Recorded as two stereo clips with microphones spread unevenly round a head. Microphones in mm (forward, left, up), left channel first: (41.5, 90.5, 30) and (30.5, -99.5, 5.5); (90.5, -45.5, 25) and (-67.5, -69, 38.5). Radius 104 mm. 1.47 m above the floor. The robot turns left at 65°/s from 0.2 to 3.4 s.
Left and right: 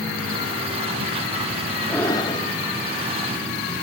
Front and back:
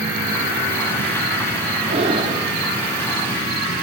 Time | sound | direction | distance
1.9 | breathing | 160° left | 0.8 m